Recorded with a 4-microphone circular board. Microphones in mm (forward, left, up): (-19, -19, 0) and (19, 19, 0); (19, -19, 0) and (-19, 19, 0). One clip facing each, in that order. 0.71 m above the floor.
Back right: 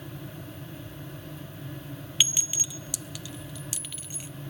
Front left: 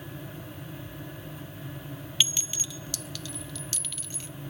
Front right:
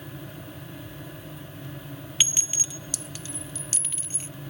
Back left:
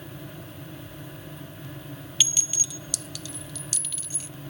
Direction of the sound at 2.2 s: 75° right.